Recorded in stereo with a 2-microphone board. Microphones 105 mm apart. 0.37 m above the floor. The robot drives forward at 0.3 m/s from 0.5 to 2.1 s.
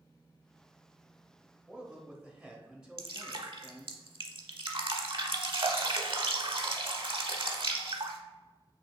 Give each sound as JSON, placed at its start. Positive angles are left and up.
{"t": 1.7, "sound": "a man speaking", "side_deg": -10, "distance_m": 1.1}
{"t": 3.0, "sound": "dripping", "side_deg": -65, "distance_m": 0.7}